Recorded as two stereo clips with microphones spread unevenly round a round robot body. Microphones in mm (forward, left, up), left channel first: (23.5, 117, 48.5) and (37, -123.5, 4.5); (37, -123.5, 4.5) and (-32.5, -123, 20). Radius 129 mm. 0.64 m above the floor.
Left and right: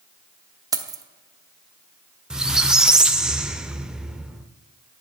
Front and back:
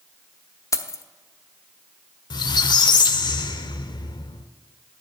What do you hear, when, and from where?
0.7 s keys jangling: 20° right, 0.9 m
2.3 s a squeak: 5° left, 0.6 m